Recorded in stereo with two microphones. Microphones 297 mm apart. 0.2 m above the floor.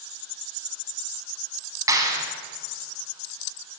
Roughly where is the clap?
Centre.